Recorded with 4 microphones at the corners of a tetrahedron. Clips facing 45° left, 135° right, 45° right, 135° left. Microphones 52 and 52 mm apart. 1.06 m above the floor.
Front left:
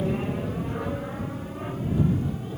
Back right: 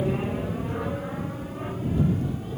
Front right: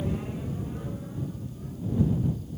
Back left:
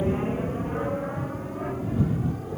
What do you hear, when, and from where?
0.0 s an aircraft: 145° left; by 2.6 s 135° left